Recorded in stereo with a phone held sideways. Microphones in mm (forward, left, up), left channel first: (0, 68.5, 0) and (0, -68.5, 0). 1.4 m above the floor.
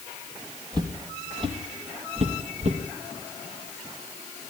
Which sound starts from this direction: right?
Footsteps, at 0.7 s.